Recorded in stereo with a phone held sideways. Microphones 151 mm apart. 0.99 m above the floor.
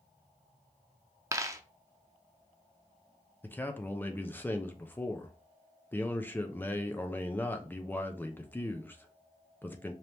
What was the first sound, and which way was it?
A dropped coin, 20° right (ahead or behind).